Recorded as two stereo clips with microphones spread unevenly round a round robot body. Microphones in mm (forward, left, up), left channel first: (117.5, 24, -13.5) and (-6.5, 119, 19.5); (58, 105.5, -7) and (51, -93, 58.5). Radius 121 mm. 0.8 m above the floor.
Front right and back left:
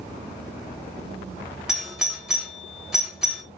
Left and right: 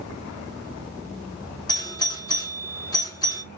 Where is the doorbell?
45° left, 1.3 m.